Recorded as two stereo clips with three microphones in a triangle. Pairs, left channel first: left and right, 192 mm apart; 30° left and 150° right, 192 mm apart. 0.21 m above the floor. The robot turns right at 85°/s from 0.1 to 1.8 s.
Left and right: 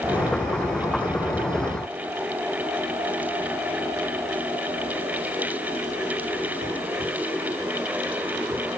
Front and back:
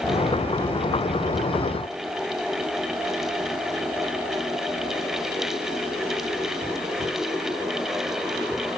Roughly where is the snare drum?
I don't hear a snare drum.